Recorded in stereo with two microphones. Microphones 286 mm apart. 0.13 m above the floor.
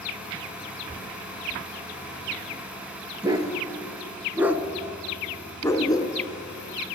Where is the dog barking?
15° right (ahead or behind), 1.2 m; by 6.2 s 15° left (ahead or behind), 0.8 m.